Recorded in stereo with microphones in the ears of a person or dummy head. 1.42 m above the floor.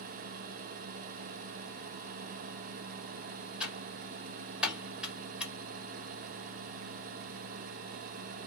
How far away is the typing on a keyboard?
About 1.1 m.